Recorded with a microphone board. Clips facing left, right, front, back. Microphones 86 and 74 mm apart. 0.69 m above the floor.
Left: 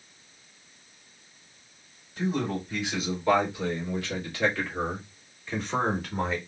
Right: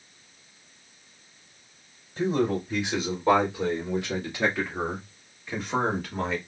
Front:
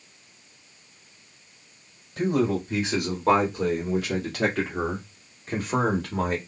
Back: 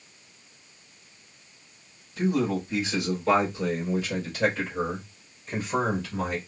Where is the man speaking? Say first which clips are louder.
Right 4 dB, front 2 dB; 30° right, 3 m; by 6.4 s 10° left, 1.6 m.